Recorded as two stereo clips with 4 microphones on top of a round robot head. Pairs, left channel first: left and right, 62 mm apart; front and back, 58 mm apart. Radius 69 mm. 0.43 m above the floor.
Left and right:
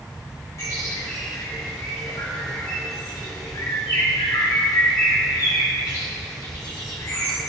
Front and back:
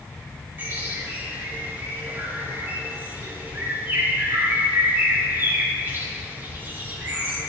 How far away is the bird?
About 4 m.